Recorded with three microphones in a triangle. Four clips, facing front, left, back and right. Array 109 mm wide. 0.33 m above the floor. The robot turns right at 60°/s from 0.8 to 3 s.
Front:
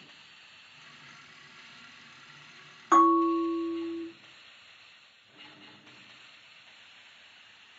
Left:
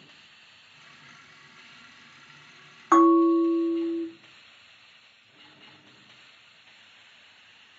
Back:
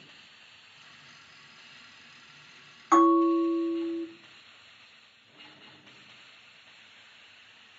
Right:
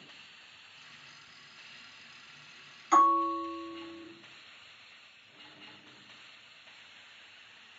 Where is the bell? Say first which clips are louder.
Left 7 dB, back 1 dB; 80° left, 0.9 m; by 4.1 s 85° left, 0.9 m.